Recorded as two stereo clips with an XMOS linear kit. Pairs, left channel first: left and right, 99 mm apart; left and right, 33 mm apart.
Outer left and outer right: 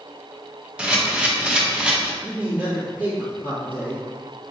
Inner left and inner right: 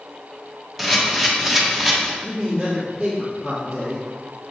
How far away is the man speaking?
About 1.6 m.